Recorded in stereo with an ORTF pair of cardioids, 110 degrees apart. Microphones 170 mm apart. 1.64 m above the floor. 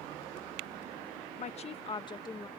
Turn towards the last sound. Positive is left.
turn(degrees=20)